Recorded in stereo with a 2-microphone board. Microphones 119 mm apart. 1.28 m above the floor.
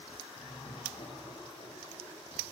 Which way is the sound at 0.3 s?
75° left (ahead or behind).